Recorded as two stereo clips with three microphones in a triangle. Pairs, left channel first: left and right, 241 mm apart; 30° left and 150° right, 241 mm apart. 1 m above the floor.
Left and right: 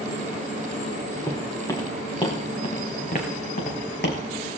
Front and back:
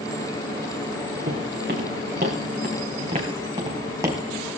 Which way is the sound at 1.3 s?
170° left.